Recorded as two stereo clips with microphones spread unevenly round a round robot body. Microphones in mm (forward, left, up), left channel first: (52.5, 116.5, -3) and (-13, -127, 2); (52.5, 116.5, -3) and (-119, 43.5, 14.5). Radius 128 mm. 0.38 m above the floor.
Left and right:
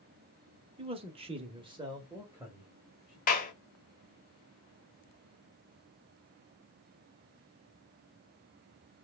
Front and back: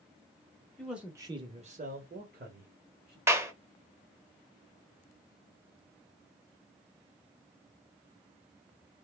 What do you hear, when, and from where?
0.8 s a man speaking: 55° right, 1.0 m; by 3.2 s 170° left, 1.9 m
3.3 s a clap: 125° left, 1.1 m